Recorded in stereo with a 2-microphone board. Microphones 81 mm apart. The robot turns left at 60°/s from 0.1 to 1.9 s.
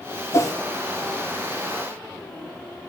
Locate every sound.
0.3 s a whoosh: 35° left (ahead or behind), 0.5 m; by 0.6 s 40° left (ahead or behind), 0.5 m